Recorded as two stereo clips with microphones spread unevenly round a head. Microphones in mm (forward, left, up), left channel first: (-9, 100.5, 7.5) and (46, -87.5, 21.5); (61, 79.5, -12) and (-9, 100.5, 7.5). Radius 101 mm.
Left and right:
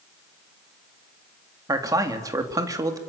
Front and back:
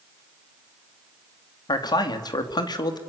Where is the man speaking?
Straight ahead, 3 m.